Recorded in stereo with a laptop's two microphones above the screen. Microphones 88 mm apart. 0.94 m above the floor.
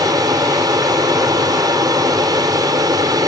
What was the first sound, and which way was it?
An aircraft, 45° right (ahead or behind).